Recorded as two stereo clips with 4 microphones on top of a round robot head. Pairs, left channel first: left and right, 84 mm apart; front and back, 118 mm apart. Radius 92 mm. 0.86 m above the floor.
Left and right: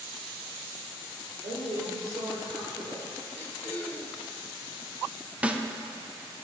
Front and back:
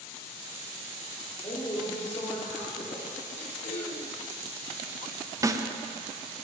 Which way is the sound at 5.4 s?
155° right.